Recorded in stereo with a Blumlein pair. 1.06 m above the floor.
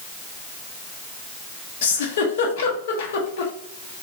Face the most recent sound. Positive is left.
turn(degrees=60)